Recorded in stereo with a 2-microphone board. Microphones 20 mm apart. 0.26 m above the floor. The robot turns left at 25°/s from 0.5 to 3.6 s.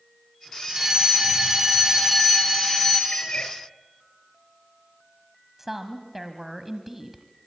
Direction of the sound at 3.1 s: 75° left (ahead or behind).